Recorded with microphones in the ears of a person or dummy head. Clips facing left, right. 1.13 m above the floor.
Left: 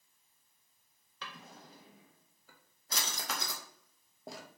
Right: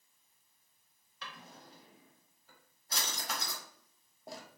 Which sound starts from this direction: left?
A drawer, at 1.2 s.